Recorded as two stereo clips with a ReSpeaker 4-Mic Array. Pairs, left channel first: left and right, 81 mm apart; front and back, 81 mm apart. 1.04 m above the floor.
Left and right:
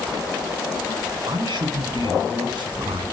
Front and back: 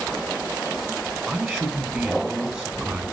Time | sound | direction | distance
1.3 | a man speaking | 105° right | 8 m